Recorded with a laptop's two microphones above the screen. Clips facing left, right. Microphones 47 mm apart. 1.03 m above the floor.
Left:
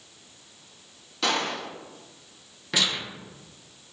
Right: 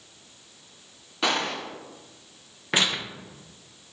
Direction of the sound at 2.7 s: 35° right (ahead or behind).